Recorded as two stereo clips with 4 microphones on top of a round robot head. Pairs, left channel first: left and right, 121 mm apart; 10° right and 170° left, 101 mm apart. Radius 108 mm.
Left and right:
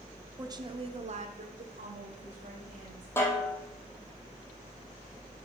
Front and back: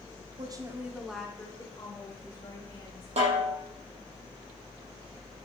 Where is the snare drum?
160° left, 5.5 m.